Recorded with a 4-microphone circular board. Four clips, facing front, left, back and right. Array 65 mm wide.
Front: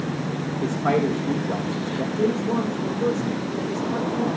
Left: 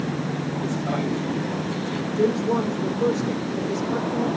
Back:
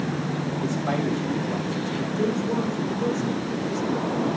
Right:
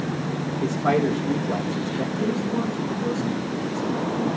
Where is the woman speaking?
70° left, 8 m.